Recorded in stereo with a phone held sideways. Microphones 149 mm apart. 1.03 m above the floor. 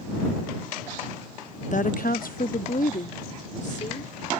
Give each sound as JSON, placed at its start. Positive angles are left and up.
{"t": 1.7, "sound": "a woman speaking", "side_deg": 55}